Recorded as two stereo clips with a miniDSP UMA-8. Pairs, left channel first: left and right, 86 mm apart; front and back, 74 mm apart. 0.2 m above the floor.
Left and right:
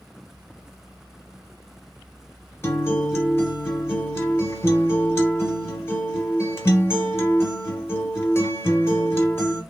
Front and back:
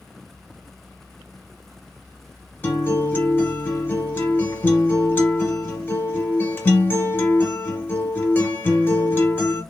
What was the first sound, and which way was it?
A guitar, 45° left.